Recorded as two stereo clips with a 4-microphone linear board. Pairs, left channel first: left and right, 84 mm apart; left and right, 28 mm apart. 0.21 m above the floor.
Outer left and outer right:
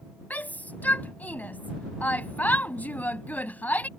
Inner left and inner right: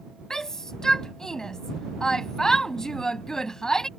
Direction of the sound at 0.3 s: 20° left (ahead or behind).